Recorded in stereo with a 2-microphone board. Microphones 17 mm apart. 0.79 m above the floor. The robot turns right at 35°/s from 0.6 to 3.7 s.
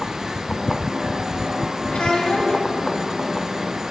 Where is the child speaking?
65° left (ahead or behind), 4 m; by 2.6 s 90° left, 4 m.